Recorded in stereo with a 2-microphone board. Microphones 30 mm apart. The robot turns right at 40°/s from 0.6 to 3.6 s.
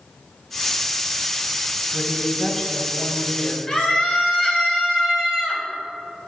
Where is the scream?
15° left (ahead or behind), 3 m.